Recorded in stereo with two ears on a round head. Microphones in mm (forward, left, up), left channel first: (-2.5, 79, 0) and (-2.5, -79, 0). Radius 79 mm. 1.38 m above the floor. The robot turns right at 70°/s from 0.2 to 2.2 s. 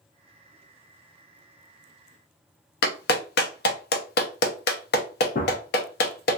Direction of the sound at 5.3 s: 50° left (ahead or behind).